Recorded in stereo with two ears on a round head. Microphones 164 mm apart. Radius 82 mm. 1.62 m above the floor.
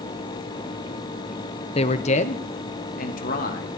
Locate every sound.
1.8 s a man speaking: 30° left (ahead or behind), 0.8 m; by 3.7 s 50° left (ahead or behind), 2 m